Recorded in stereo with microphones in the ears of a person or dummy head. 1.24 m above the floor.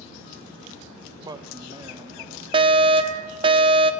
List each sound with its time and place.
1.2 s a man speaking: 20° right (ahead or behind), 0.8 m; by 2.4 s 15° right (ahead or behind), 2.5 m
2.5 s a fire alarm: 25° right (ahead or behind), 1.0 m